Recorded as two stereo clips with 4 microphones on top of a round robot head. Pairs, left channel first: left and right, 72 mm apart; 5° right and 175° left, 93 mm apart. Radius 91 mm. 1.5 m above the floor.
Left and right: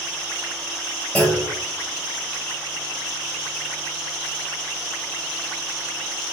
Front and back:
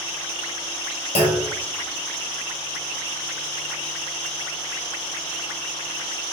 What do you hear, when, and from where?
1.1 s a clunk: 5° left, 2.5 m